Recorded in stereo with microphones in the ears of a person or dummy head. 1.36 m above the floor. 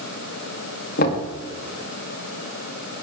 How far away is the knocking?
About 2.5 m.